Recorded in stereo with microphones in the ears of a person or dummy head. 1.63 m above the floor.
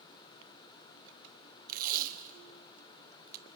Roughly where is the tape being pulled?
Right.